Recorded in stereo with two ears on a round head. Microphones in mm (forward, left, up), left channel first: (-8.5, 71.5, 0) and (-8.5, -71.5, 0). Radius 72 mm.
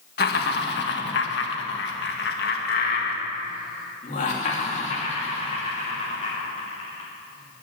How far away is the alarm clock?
No alarm clock in this recording.